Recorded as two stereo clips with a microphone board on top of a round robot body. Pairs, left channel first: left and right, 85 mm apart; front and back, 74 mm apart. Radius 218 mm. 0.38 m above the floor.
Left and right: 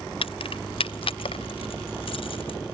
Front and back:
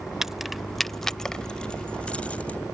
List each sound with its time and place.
0.2 s keys jangling: 95° left; by 2.6 s 70° left